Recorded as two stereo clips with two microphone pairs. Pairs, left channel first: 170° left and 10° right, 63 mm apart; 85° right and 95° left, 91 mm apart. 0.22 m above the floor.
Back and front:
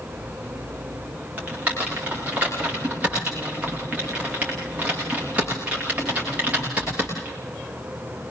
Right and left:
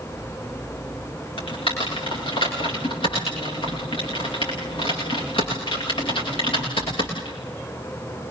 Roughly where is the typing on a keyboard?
Right.